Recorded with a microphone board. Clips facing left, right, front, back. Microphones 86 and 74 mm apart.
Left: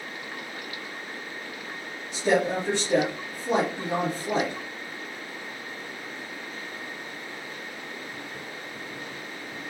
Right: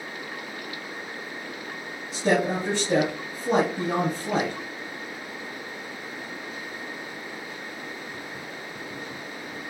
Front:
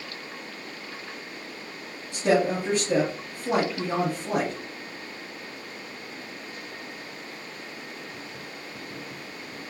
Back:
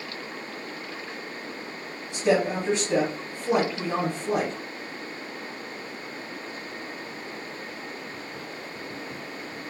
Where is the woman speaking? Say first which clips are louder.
Even, even; 45° right, 2.5 m.